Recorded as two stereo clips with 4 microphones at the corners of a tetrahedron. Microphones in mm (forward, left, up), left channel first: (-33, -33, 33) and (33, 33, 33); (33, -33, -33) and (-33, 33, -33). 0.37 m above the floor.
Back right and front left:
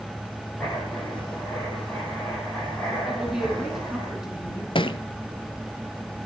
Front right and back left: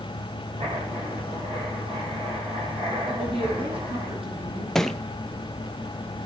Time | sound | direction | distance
0.6 | writing | 140° left | 9 m
3.1 | a woman speaking | 130° left | 5.5 m
4.8 | a thud | 130° right | 0.8 m